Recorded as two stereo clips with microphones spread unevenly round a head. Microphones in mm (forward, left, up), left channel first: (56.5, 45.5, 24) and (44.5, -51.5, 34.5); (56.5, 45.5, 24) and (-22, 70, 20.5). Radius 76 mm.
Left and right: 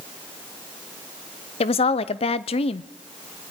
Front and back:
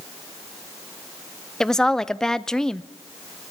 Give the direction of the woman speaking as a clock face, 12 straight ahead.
10 o'clock.